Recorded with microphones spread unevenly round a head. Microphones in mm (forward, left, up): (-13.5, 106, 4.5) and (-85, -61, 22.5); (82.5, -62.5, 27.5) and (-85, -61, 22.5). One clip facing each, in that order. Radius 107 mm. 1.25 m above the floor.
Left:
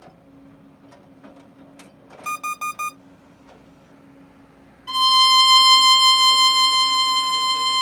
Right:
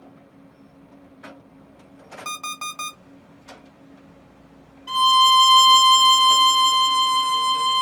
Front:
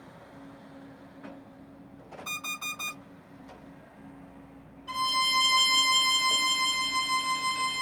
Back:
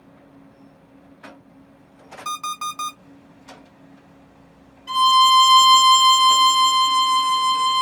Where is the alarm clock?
160° left, 2 m.